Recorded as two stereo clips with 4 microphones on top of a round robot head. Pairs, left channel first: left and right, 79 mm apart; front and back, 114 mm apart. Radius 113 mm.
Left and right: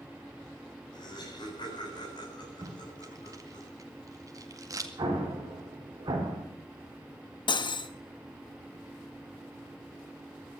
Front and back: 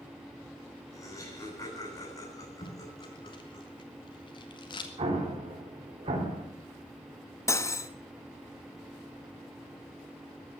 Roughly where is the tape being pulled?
Ahead right.